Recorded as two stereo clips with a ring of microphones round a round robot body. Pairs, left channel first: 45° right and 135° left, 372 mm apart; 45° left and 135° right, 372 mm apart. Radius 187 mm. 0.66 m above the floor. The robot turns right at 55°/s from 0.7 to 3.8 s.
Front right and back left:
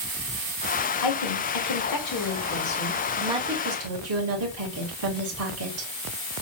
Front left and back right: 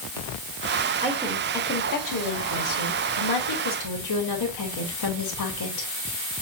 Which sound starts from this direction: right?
A woman speaking, at 1.0 s.